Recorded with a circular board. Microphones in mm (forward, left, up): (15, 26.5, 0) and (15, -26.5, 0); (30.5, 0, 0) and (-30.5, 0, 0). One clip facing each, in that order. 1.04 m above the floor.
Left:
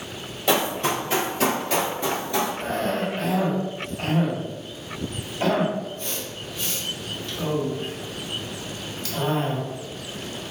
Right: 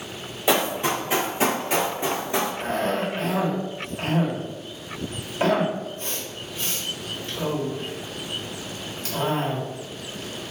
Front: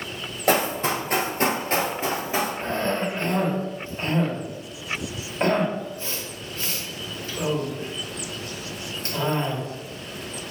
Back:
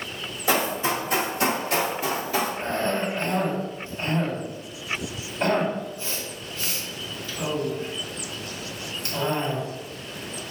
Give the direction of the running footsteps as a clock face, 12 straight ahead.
12 o'clock.